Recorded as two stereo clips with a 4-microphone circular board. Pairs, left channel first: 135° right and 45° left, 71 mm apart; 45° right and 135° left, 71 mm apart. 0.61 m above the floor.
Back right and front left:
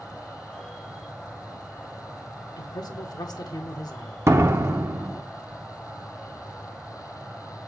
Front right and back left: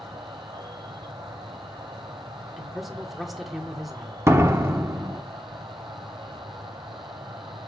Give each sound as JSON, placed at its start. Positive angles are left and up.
{"t": 0.0, "sound": "an insect", "azimuth_deg": 135, "distance_m": 1.9}
{"t": 2.6, "sound": "a man speaking", "azimuth_deg": -135, "distance_m": 1.3}
{"t": 4.3, "sound": "a door slam", "azimuth_deg": 90, "distance_m": 0.9}